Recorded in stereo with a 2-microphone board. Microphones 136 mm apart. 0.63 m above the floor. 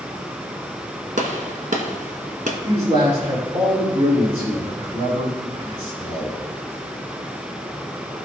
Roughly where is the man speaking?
Right.